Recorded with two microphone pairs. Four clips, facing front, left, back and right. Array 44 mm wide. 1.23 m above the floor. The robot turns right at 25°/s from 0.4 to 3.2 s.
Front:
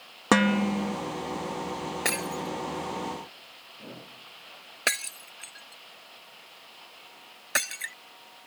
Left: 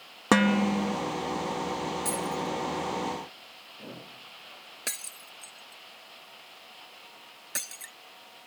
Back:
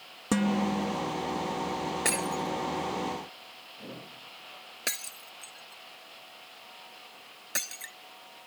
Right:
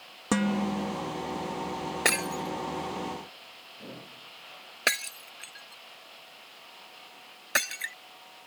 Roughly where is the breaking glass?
Right.